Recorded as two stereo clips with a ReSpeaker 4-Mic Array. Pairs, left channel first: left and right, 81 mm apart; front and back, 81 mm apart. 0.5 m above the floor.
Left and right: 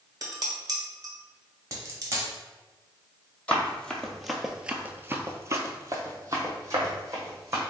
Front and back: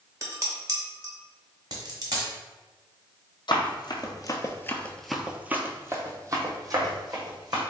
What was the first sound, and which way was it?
Dishes clattering, 130° right.